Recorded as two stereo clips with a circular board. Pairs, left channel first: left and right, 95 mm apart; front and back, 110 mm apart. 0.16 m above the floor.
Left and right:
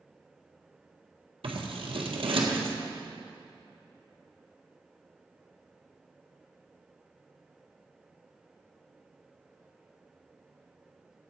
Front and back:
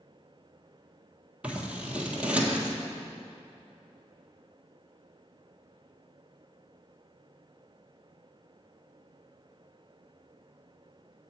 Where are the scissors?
100° right, 1.4 m.